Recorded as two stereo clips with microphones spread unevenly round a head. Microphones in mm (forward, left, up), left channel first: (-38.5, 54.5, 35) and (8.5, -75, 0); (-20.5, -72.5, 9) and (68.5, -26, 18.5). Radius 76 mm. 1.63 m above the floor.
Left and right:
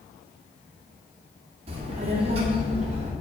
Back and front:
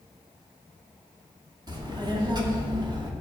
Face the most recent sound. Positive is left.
turn(degrees=-15)